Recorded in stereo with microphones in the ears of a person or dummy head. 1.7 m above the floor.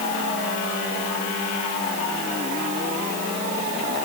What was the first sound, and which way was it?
Only background noise.